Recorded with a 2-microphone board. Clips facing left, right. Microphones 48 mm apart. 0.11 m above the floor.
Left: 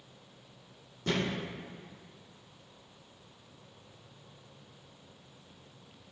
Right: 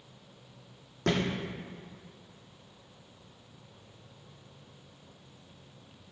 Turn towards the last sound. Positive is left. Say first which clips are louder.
# right 3 dB
turn(degrees=-75)  # may be behind; listen again after turning